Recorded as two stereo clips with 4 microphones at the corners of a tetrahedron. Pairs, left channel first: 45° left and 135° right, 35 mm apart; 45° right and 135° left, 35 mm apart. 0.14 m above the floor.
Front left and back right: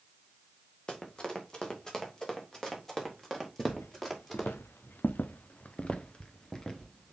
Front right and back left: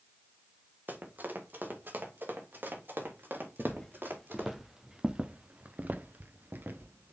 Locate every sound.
0.9 s running footsteps: 110° left, 2.5 m; by 4.6 s 125° left, 4.5 m
3.6 s footsteps: 35° left, 1.2 m; by 7.1 s 125° left, 1.4 m